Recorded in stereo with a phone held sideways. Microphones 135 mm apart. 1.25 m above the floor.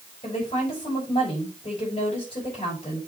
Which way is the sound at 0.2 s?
45° left (ahead or behind).